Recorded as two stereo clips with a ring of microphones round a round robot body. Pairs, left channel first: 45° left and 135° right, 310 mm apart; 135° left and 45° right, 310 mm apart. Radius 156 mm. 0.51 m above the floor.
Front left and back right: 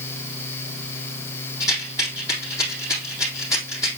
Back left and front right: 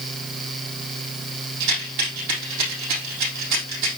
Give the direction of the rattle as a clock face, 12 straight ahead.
1 o'clock.